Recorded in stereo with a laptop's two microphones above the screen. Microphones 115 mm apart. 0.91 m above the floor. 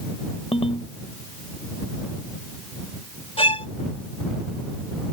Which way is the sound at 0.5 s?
60° left (ahead or behind).